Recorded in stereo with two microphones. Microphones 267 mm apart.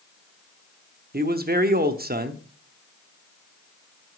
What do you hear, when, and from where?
1.1 s a man speaking: 35° right (ahead or behind), 0.9 m